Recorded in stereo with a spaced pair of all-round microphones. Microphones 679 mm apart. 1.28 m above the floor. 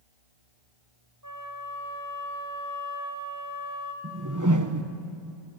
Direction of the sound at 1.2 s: 25° right (ahead or behind).